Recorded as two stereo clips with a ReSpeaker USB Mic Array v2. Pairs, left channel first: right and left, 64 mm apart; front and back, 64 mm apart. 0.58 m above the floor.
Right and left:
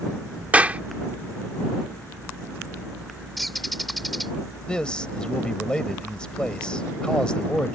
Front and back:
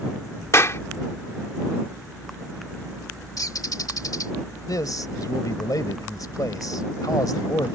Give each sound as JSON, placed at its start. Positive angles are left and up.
{"t": 0.5, "sound": "a clap", "azimuth_deg": 30}
{"t": 3.4, "sound": "a bird", "azimuth_deg": 0}
{"t": 4.7, "sound": "a man speaking", "azimuth_deg": -15}